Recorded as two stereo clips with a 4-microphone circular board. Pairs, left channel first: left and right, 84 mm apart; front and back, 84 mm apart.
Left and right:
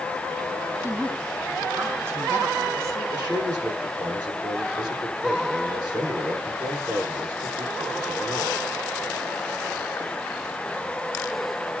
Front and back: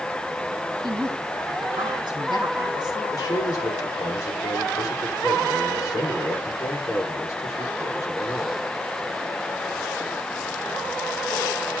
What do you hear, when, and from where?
0.8 s a woman speaking: 150° right, 4 m; by 3.0 s 140° right, 5 m
3.1 s a man speaking: 55° right, 8 m